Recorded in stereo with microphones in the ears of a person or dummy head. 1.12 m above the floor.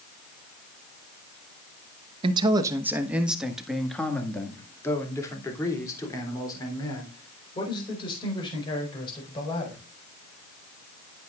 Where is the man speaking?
40° right (ahead or behind), 1.0 m; by 9.8 s 20° left (ahead or behind), 5.5 m.